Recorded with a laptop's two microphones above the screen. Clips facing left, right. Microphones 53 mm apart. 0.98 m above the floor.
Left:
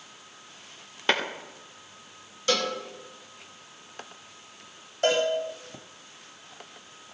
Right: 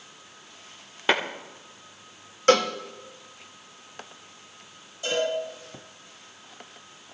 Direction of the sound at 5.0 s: 65° left (ahead or behind).